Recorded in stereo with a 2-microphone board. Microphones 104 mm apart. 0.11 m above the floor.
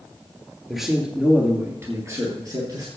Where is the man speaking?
Centre (ahead or behind), 2 m; by 2.9 s 45° right (ahead or behind), 3 m.